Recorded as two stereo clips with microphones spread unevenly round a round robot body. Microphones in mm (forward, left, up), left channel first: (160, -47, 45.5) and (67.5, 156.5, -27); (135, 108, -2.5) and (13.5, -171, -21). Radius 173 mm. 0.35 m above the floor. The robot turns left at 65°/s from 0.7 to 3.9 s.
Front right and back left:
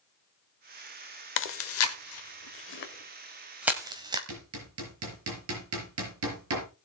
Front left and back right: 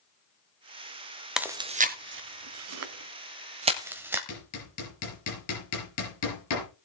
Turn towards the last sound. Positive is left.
turn(degrees=110)